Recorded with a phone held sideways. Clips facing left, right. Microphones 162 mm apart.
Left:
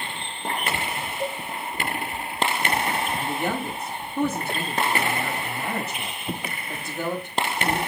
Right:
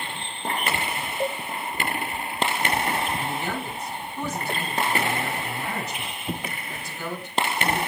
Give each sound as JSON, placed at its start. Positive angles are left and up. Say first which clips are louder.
{"t": 1.2, "sound": "a cowbell", "louder": "right 3 dB", "side_deg": -60, "distance_m": 1.4}
{"t": 3.2, "sound": "a man speaking", "louder": "left 3 dB", "side_deg": 60, "distance_m": 6.0}